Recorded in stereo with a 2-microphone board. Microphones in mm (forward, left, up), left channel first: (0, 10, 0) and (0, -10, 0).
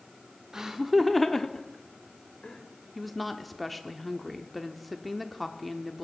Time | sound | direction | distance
0.5 | laughter | 30° right (ahead or behind) | 0.9 m
3.0 | a woman speaking | centre (ahead or behind) | 1.0 m